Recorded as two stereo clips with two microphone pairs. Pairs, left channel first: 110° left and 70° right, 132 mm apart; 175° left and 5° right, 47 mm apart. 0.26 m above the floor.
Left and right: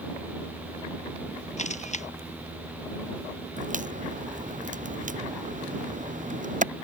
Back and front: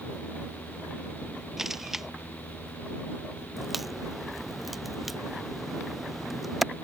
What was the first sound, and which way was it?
A camera shutter, 80° left.